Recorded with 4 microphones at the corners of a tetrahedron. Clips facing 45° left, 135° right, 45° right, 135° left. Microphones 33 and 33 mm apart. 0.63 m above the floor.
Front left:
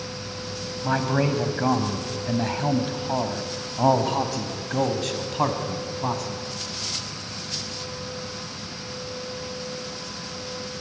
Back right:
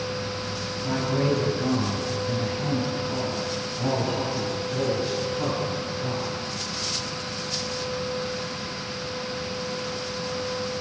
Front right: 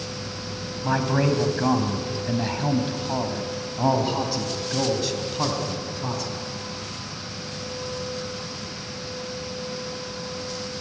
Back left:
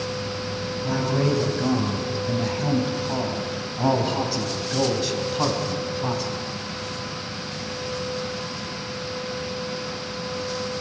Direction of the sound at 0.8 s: Straight ahead.